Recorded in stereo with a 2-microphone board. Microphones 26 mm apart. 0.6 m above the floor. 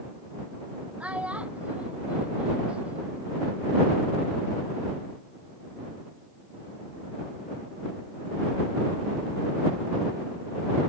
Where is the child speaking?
55° right (ahead or behind); by 3.3 s 50° right (ahead or behind).